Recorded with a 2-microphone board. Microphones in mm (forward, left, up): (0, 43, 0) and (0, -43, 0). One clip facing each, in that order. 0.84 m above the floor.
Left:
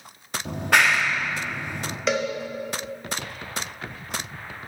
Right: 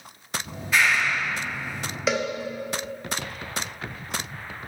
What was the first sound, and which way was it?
A clap, 65° left (ahead or behind).